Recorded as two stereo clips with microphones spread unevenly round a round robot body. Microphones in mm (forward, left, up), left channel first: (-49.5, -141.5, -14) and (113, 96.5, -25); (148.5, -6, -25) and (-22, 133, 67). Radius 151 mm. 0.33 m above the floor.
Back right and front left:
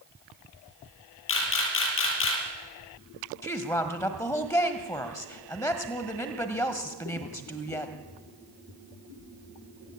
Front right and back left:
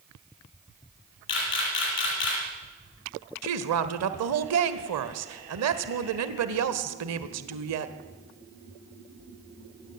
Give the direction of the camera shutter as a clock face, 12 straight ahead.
3 o'clock.